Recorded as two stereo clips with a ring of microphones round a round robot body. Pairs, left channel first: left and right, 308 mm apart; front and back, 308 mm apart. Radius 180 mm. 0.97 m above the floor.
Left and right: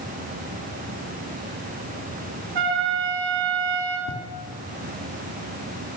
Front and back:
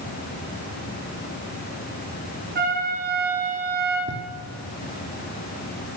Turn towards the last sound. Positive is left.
turn(degrees=130)